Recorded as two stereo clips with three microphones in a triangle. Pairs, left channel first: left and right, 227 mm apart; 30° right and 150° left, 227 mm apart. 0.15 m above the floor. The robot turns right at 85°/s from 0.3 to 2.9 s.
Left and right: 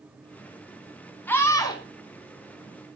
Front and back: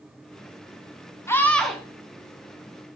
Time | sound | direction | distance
1.3 | a scream | 20° left | 1.1 m